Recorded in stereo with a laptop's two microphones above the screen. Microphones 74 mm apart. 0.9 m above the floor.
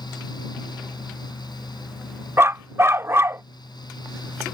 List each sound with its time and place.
0.0 s a fan: 85° left
2.4 s a dog barking: 35° right (ahead or behind)